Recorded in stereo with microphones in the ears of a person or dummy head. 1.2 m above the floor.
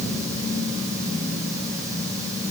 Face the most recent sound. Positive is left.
No sound to turn to.